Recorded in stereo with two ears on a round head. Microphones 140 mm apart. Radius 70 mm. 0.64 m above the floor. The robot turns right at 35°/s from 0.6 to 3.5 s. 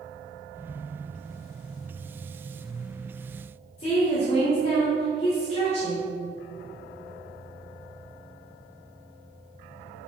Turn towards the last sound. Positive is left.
turn(degrees=40)  # may be behind; listen again after turning